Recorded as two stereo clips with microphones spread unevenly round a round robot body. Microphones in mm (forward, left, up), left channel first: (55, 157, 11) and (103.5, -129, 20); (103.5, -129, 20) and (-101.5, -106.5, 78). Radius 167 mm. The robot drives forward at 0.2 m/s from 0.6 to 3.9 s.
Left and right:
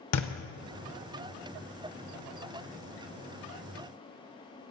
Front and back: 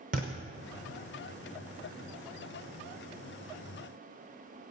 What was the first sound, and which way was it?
A thud, 130° left.